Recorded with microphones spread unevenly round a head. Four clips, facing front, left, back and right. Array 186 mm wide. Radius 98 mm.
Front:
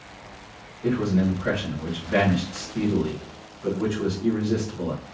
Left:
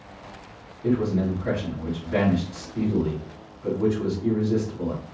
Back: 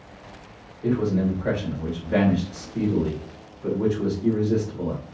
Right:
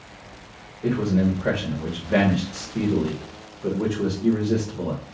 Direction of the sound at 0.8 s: 110° right.